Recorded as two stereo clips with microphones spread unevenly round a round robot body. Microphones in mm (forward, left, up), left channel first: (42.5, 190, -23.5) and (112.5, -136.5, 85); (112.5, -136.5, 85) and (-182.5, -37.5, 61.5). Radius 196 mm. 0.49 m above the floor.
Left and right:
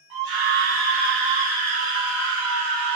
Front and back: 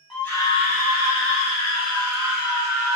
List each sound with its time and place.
0.1 s a scream: 110° right, 1.4 m; by 3.0 s 20° right, 2 m